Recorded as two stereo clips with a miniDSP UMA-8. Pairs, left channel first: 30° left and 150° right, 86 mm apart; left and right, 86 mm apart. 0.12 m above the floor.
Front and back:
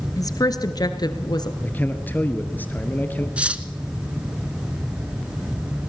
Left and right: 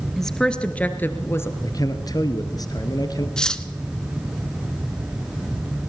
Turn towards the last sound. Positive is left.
turn(degrees=155)